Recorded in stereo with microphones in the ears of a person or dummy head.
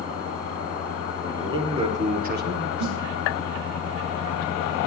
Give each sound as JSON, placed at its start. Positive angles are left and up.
{"t": 1.2, "sound": "a man speaking", "side_deg": -10, "distance_m": 2.0}
{"t": 2.8, "sound": "a snare drum", "side_deg": -55, "distance_m": 2.5}